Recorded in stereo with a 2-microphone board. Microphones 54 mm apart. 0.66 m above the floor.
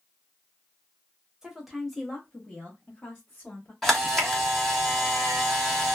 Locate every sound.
1.4 s a woman speaking: 10° right (ahead or behind), 0.8 m; by 3.7 s 20° left (ahead or behind), 1.5 m
3.8 s a camera shutter: 5° left (ahead or behind), 1.0 m